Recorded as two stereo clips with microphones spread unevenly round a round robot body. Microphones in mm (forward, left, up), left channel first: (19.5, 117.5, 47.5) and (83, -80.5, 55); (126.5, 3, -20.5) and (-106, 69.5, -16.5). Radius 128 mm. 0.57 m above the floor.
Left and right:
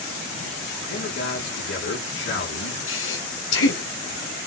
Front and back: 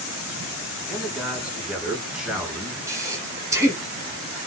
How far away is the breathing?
About 6 m.